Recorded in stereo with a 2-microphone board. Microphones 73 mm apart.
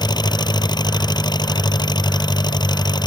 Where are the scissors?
I don't hear scissors.